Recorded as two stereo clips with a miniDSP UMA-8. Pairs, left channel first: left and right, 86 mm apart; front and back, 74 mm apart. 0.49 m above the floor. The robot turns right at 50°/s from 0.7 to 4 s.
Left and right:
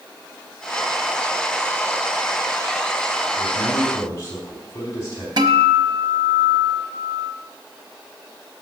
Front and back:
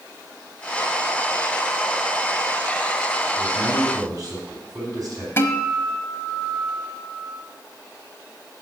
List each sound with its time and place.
3.4 s a man speaking: 115° left, 3.5 m; by 5.3 s 145° left, 3.5 m
5.4 s a guitar: 60° right, 1.0 m